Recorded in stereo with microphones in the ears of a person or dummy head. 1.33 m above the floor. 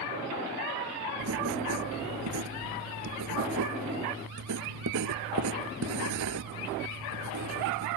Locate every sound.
1.2 s writing: 75° right (ahead or behind)